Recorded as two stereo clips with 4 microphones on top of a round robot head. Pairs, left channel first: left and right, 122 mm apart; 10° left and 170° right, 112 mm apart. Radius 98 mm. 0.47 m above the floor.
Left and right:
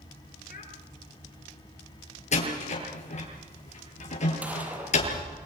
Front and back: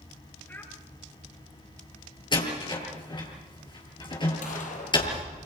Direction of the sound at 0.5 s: 80° left.